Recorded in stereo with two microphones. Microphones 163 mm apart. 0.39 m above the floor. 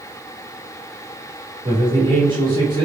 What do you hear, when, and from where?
1.6 s a man speaking: 30° right (ahead or behind), 1.6 m